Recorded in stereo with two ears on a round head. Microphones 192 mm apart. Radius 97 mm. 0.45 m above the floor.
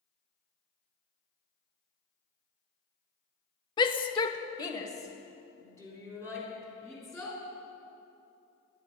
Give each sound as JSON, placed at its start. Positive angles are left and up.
{"t": 3.8, "sound": "a shout", "side_deg": 20, "distance_m": 0.7}